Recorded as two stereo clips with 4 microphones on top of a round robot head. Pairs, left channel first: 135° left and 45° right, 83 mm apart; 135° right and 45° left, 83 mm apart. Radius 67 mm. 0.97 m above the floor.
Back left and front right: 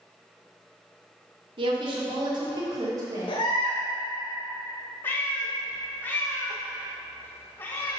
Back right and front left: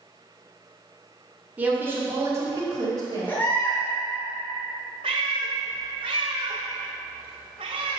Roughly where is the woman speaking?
Ahead right.